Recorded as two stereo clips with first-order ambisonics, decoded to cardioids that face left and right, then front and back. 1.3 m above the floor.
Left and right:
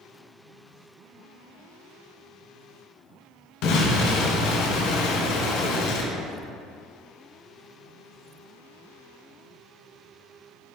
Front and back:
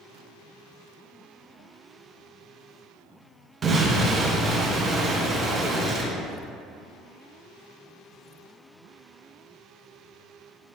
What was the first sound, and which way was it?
An explosion, 105° left.